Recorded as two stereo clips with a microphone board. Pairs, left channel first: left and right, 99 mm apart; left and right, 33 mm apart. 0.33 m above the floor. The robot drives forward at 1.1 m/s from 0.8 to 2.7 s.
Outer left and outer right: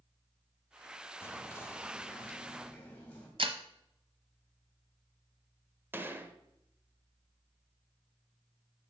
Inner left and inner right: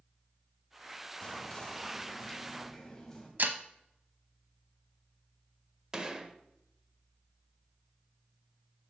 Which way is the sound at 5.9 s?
20° right (ahead or behind).